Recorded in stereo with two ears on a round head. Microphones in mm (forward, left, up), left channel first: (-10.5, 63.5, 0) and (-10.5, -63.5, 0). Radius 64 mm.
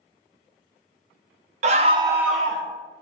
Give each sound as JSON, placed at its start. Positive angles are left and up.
{"t": 1.6, "sound": "a scream", "side_deg": -50, "distance_m": 0.7}